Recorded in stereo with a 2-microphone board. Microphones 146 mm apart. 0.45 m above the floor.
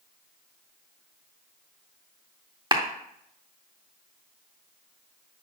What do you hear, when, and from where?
2.7 s a clap: 30° right (ahead or behind), 0.7 m